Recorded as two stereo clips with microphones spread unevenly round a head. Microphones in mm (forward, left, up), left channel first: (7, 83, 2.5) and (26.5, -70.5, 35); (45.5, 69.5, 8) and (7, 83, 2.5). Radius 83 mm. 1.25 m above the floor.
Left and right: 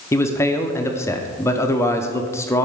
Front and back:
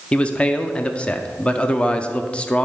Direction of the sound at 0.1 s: 45° left.